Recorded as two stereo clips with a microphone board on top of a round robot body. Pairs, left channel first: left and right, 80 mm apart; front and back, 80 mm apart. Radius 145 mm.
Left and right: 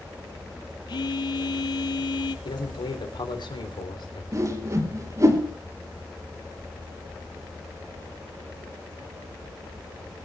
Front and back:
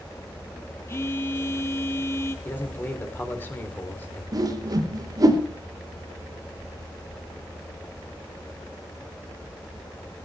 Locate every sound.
0.9 s a phone buzzing: 60° left, 0.7 m
2.5 s a man speaking: 65° left, 3 m
4.3 s a whoosh: 140° right, 4 m